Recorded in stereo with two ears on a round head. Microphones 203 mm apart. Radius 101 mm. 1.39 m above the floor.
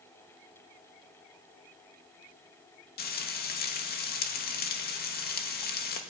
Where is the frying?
45° left (ahead or behind), 2.5 m.